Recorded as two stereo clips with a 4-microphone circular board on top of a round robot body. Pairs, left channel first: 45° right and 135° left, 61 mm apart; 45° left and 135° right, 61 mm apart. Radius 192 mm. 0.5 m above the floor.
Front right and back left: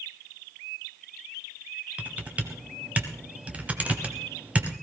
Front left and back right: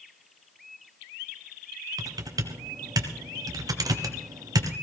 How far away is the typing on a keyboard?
About 1.1 m.